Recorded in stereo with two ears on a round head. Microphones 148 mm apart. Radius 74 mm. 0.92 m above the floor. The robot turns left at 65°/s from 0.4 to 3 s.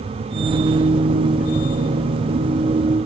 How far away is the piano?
No piano in this recording.